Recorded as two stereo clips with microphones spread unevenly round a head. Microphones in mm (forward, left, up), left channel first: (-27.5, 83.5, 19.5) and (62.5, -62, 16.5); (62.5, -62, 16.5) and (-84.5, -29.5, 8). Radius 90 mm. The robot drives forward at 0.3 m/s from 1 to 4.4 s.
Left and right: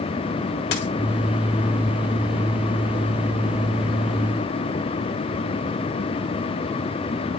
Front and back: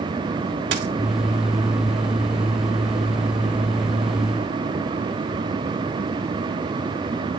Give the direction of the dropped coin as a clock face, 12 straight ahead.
7 o'clock.